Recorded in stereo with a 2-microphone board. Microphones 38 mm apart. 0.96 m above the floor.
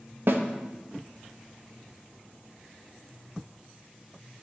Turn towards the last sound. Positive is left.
turn(degrees=-70)  # may be behind; listen again after turning